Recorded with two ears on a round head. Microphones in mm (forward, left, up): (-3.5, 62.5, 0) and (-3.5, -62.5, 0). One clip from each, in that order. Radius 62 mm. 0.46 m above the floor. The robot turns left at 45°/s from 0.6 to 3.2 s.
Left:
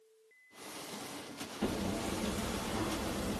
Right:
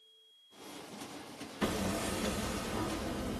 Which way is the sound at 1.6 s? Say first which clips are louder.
Right 2 dB; 130° right.